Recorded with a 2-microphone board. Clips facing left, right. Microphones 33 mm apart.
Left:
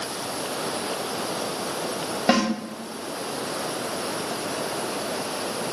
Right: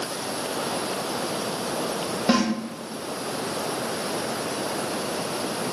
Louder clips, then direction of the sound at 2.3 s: Left 1 dB; 15° left (ahead or behind).